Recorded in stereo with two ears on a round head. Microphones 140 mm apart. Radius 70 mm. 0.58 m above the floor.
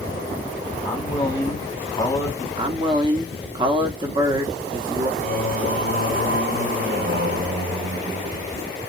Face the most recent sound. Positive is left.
turn(degrees=-60)  # may be behind; listen again after turning